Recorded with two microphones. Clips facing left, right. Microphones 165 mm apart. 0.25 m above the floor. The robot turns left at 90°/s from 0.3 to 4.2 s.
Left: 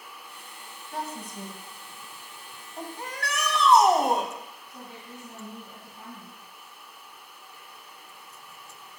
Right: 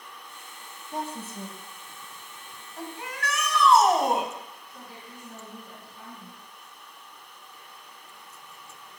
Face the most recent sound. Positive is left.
turn(degrees=20)  # may be behind; listen again after turning